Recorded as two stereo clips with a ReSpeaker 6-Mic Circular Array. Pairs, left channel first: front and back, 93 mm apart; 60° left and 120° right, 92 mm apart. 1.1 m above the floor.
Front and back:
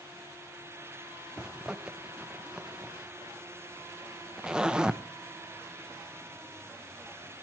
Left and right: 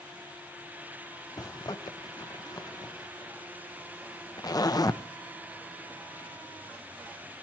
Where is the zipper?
100° left, 0.8 m.